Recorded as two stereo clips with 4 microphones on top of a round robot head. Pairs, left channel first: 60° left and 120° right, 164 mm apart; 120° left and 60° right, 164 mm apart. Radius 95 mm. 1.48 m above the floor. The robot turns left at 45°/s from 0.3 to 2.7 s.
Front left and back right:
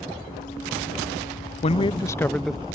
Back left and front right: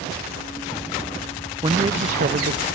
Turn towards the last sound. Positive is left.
turn(degrees=-40)